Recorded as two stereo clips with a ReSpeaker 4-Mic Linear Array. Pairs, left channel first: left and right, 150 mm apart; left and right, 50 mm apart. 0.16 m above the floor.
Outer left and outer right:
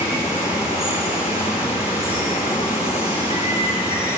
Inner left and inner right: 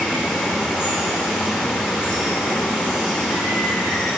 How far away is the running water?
About 6.5 m.